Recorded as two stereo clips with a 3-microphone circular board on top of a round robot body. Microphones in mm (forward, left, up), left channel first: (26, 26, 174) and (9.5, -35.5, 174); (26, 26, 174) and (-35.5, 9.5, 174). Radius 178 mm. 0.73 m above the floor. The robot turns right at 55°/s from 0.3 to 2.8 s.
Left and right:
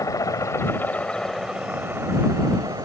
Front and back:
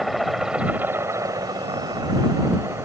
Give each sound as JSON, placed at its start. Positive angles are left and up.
{"t": 0.0, "sound": "a helicopter", "azimuth_deg": 105}